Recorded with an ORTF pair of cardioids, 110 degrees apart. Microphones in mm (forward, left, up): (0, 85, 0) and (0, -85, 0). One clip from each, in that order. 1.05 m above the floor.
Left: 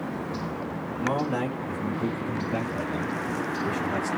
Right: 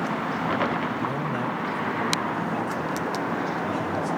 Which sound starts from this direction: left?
A man speaking, at 1.0 s.